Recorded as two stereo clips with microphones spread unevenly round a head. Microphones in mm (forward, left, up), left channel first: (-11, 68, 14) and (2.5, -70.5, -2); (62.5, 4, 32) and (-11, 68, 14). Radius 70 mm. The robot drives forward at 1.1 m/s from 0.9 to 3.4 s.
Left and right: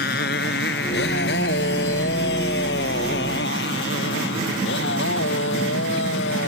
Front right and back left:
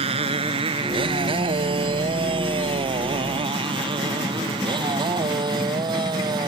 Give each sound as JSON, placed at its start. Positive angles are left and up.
{"t": 0.0, "sound": "a motorcycle", "azimuth_deg": 115}